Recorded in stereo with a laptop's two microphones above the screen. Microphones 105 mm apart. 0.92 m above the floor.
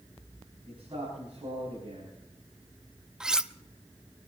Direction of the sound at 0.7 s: 55° right (ahead or behind).